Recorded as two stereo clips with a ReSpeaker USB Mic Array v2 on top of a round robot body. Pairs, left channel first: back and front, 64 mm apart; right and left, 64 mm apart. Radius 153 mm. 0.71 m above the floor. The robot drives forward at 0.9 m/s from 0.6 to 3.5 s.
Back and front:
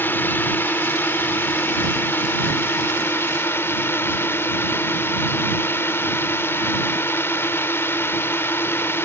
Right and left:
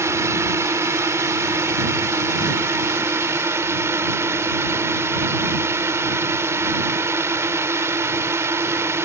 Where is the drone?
125° left; by 9.1 s 130° left.